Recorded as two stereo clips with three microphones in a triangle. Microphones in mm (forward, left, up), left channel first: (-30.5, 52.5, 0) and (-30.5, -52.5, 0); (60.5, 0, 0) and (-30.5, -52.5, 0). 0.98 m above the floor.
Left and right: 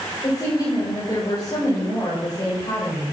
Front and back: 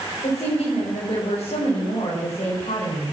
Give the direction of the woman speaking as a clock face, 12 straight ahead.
11 o'clock.